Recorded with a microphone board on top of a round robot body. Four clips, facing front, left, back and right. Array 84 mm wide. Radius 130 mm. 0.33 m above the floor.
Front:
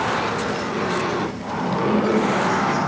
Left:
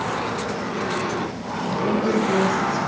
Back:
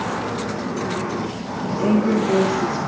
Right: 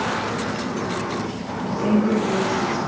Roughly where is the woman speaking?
Behind right.